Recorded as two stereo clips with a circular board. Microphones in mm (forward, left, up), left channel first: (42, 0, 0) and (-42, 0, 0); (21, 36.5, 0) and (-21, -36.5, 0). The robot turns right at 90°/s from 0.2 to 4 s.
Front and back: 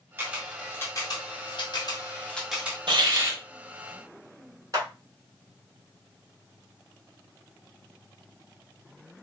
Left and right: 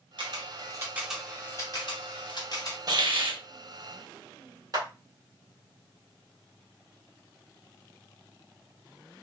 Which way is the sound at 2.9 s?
160° right.